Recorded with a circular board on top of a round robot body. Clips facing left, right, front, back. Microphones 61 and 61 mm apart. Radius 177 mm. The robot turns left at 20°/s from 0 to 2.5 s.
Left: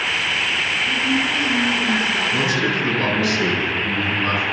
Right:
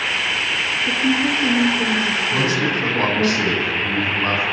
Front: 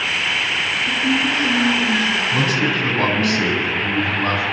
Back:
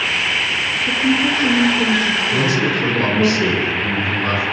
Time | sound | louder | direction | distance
0.9 | a woman speaking | right 4 dB, back 3 dB | 105° right | 3.5 m
2.3 | a man speaking | even, back 1 dB | 40° right | 9 m